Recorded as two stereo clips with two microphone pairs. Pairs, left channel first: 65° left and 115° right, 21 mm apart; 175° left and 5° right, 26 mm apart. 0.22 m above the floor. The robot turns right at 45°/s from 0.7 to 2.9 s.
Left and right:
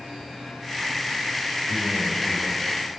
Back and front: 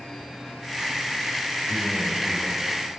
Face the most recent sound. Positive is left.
turn(degrees=-10)